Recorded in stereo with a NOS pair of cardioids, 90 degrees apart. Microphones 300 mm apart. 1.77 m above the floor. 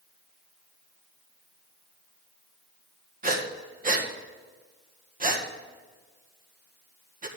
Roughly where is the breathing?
Ahead right.